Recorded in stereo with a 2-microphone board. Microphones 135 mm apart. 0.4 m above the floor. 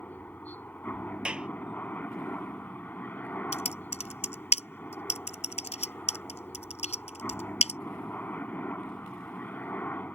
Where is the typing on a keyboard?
55° left (ahead or behind).